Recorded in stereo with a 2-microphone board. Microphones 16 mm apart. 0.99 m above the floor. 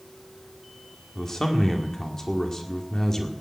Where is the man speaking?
30° left (ahead or behind), 2.0 m.